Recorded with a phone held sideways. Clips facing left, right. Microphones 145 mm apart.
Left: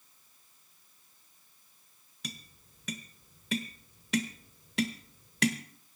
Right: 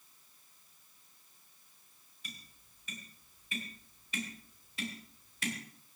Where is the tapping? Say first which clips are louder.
Left 9 dB; 80° left, 1.2 m.